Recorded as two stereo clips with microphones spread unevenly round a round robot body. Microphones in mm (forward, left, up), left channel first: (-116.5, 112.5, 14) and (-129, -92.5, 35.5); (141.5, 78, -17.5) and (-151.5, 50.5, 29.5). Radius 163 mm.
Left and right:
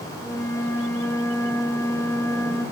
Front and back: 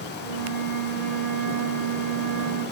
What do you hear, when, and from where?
0.2 s a flute: 160° left, 4.5 m